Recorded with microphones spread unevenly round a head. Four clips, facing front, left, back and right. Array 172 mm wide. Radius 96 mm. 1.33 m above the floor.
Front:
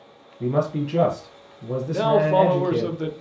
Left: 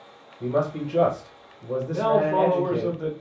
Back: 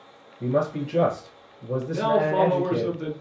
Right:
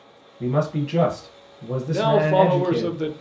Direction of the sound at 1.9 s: 70° right.